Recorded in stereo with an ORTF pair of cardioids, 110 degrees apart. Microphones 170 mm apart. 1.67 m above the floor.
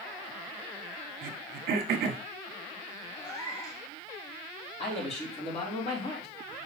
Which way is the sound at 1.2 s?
65° right.